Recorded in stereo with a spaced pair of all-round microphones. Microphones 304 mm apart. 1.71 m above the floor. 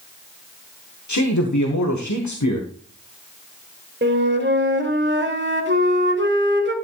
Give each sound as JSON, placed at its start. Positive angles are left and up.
{"t": 1.1, "sound": "a man speaking", "side_deg": 70, "distance_m": 1.5}
{"t": 4.0, "sound": "a flute", "side_deg": -35, "distance_m": 1.8}